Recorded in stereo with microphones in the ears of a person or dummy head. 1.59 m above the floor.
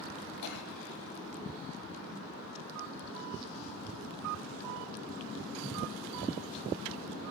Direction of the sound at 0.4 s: 65° left (ahead or behind).